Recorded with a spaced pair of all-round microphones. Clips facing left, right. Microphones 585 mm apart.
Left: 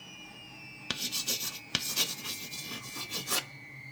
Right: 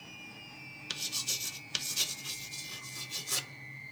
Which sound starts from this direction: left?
Writing, at 0.9 s.